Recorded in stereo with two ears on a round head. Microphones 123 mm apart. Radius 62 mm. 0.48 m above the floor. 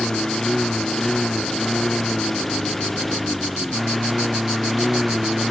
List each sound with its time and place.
0.0 s a lawn mower: centre (ahead or behind)